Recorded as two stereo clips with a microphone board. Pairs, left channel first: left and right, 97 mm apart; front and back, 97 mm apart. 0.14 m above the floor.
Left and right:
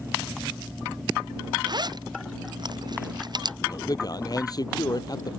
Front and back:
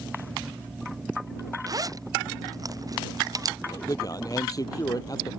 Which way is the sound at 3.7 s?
45° left.